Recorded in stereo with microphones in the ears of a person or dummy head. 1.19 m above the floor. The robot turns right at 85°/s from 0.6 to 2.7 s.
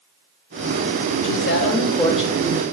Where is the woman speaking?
95° left, 0.6 m; by 2.6 s 145° right, 0.6 m.